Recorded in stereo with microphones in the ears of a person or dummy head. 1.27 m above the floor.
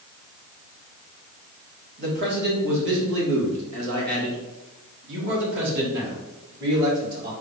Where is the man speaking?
45° right (ahead or behind), 1.7 m; by 7.3 s 55° right (ahead or behind), 3 m.